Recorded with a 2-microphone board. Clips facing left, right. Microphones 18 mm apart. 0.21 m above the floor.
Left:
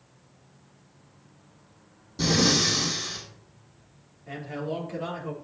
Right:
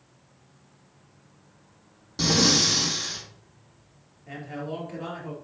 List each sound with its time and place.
2.2 s breathing: 30° right (ahead or behind), 4.5 m
4.3 s a man speaking: centre (ahead or behind), 3.5 m